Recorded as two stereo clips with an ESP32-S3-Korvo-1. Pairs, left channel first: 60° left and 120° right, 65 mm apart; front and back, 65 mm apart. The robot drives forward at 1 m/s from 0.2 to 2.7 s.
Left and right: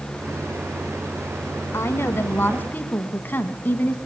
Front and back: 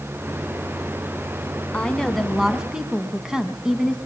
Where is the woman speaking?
65° left, 2 m; by 4.0 s 105° left, 2 m.